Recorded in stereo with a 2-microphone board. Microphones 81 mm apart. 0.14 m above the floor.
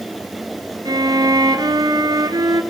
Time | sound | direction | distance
0.8 | a violin | 55° right (ahead or behind) | 1.6 m